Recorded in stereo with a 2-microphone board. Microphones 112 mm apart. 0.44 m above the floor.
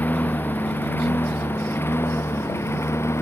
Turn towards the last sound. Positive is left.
turn(degrees=25)  # may be behind; listen again after turning